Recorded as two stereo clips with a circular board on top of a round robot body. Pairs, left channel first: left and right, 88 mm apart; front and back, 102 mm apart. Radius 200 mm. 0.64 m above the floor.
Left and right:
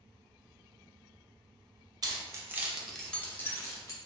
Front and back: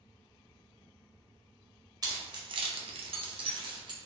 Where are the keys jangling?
130° right, 0.7 m; by 4.0 s 135° left, 0.9 m.